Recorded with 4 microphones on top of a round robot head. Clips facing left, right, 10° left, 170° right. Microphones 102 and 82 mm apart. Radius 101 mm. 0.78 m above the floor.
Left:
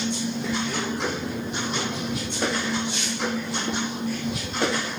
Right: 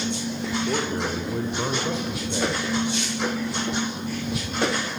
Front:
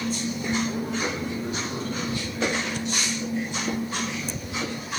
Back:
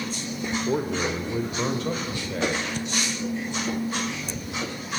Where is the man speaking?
160° right, 2.5 m; by 2.7 s 125° right, 4.5 m.